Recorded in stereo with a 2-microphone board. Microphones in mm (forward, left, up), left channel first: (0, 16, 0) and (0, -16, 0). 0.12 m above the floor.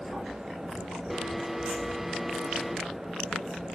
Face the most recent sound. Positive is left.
turn(degrees=-5)  # may be behind; listen again after turning